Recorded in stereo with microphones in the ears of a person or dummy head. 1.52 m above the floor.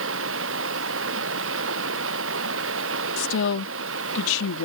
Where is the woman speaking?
85° left.